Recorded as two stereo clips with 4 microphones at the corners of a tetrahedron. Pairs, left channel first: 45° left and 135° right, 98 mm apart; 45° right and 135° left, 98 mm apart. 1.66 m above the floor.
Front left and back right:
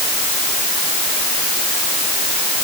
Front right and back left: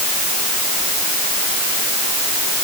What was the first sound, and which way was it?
Only background noise.